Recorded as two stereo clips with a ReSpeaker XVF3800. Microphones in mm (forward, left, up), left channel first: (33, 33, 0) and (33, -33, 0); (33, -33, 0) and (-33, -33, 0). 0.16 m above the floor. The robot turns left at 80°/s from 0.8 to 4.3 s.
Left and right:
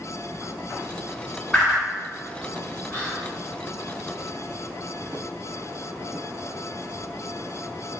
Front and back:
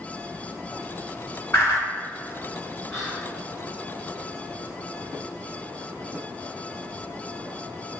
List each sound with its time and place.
1.5 s a whoosh: 15° left, 1.4 m; by 1.8 s 10° right, 1.4 m
2.9 s whispering: 75° left, 1.3 m; by 3.4 s 40° left, 1.3 m